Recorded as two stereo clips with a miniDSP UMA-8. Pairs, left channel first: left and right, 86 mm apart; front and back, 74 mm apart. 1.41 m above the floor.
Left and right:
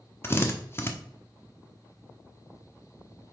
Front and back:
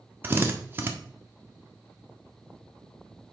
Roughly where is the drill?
Behind left.